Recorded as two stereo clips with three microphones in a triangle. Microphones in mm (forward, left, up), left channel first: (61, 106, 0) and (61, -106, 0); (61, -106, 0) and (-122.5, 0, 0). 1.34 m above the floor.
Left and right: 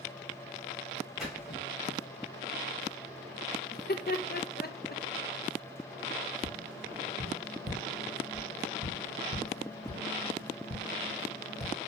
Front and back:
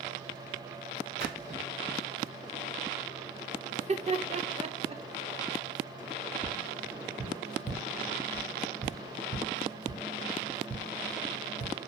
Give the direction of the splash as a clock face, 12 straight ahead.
6 o'clock.